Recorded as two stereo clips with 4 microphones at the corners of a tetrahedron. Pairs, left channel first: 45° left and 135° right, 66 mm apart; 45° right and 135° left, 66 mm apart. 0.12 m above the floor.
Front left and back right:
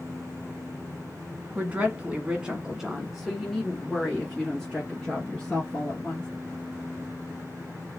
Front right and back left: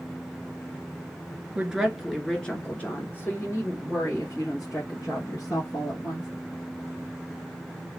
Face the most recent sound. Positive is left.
turn(degrees=-30)